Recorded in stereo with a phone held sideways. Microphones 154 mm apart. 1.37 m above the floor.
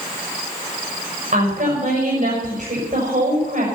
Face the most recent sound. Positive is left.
turn(degrees=-65)  # may be behind; listen again after turning